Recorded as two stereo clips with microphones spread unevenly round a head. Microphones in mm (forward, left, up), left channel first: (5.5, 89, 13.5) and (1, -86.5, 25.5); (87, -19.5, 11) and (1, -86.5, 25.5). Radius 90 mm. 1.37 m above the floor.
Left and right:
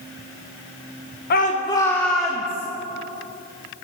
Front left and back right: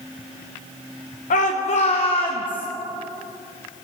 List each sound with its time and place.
1.3 s a shout: 50° left, 0.9 m; by 2.7 s 15° right, 1.9 m